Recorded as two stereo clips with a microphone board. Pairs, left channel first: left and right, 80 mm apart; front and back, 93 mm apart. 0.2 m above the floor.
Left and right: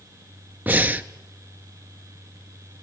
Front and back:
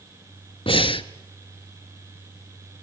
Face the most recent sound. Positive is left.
turn(degrees=-20)